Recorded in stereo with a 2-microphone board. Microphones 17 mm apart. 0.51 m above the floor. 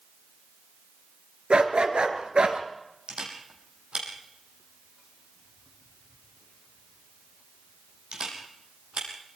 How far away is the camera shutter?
About 5.5 m.